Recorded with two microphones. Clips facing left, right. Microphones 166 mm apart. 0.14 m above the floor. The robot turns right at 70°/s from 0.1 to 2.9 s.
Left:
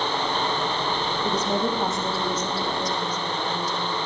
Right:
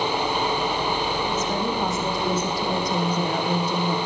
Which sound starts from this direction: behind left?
A woman speaking, at 1.2 s.